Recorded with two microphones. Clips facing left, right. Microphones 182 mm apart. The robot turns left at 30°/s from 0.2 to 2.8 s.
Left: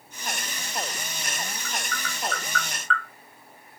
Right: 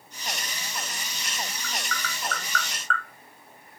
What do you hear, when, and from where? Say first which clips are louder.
1.6 s tapping: left 1 dB; 75° right (ahead or behind), 1.5 m; by 3.0 s 40° right (ahead or behind), 1.5 m